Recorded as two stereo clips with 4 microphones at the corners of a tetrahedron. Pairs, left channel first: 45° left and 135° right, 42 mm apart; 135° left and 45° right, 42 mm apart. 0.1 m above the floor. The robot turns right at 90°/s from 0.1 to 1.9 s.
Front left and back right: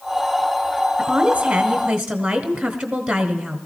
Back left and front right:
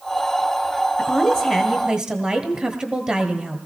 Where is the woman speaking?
155° right, 1.2 m; by 3.6 s 75° right, 1.2 m.